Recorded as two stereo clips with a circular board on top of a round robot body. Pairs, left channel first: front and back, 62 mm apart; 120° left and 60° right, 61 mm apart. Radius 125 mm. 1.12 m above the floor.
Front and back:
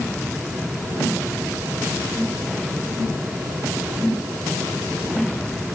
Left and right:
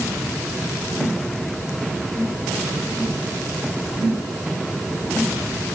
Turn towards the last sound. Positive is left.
No sound to turn to.